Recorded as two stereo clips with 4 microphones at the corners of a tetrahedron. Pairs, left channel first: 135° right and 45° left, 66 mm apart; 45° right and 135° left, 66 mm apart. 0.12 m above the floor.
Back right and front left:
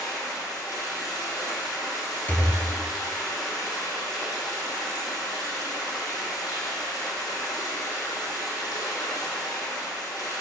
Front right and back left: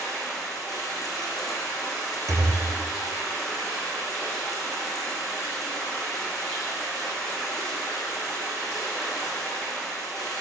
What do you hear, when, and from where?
0.0 s running water: 135° right, 1.7 m
2.3 s a thud: 160° left, 1.3 m